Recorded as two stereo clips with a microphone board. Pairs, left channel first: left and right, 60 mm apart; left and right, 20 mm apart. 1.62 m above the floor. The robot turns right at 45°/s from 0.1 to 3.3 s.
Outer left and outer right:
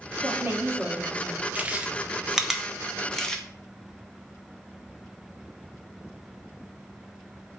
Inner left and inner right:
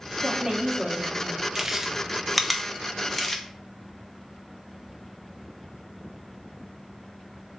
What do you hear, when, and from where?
0.2 s a woman speaking: 40° right, 1.5 m; by 1.4 s 15° left, 1.5 m
1.6 s chewing: 20° right (ahead or behind), 0.6 m; by 3.4 s 10° left (ahead or behind), 0.6 m